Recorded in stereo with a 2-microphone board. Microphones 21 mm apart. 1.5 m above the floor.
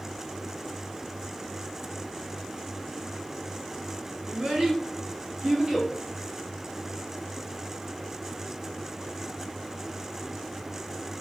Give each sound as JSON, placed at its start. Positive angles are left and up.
{"t": 4.3, "sound": "a child speaking", "side_deg": -70, "distance_m": 1.6}